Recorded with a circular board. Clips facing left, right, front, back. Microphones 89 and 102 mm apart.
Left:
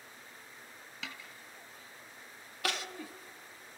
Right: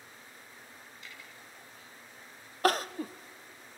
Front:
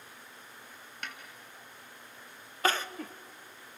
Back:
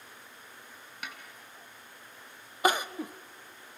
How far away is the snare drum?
About 2 m.